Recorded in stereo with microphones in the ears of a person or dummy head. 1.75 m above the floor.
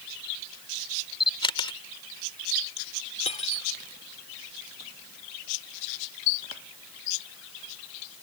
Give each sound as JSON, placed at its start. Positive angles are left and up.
{"t": 1.2, "sound": "a camera shutter", "side_deg": 25}
{"t": 3.2, "sound": "cutlery clinking", "side_deg": 35}